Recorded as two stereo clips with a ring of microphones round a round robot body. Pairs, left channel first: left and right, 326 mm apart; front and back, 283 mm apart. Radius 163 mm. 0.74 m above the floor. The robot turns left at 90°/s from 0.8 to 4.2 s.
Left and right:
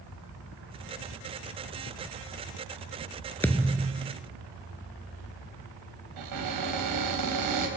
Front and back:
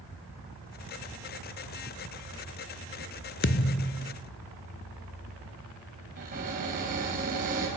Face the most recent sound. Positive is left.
turn(degrees=-115)